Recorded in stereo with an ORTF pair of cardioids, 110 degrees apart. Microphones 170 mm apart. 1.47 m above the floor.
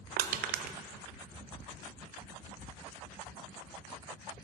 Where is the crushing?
65° right, 0.5 m.